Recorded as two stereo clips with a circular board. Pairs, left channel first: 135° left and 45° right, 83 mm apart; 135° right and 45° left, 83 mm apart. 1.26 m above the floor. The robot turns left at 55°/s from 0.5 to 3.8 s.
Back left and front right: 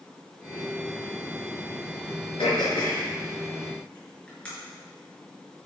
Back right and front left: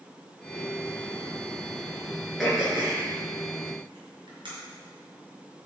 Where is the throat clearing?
140° left, 6 m; by 4.5 s 60° left, 6 m.